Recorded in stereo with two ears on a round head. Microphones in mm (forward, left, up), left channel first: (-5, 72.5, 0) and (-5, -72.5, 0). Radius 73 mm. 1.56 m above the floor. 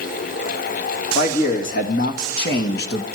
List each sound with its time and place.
1.1 s a man speaking: 50° left (ahead or behind), 2 m; by 3.0 s 70° left (ahead or behind), 1.5 m